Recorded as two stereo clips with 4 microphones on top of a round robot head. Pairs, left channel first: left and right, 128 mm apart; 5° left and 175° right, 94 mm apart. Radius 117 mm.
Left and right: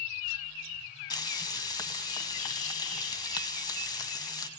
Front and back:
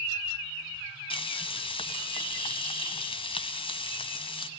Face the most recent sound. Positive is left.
turn(degrees=30)